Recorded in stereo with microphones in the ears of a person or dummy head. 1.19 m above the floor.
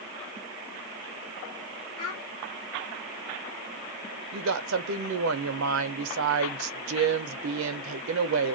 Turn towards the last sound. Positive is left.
turn(degrees=-75)  # may be behind; listen again after turning